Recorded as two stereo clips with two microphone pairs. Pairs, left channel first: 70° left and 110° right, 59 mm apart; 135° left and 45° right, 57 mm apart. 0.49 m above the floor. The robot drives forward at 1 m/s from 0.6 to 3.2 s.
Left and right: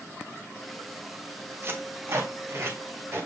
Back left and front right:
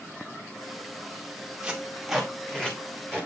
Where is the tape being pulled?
110° right, 1.2 m; by 3.3 s 160° right, 2 m.